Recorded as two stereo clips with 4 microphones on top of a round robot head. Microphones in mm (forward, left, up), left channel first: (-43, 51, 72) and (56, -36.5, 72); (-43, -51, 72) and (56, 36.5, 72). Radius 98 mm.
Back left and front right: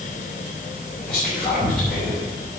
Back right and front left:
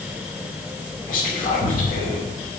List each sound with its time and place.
1.1 s whispering: 135° right, 3.5 m